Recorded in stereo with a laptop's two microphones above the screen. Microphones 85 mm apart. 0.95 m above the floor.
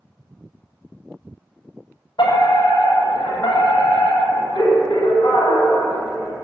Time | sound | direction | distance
2.2 | a fire alarm | 75° left (ahead or behind) | 8.5 m